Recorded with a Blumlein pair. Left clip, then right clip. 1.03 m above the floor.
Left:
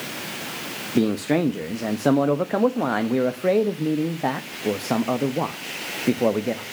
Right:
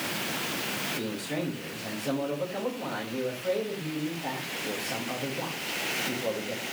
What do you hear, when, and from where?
0.9 s a man speaking: 40° left, 0.9 m